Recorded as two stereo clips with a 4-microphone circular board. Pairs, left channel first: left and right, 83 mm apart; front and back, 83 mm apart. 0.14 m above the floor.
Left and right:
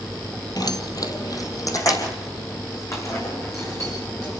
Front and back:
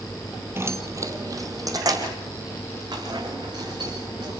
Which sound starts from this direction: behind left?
Keys jangling, at 0.6 s.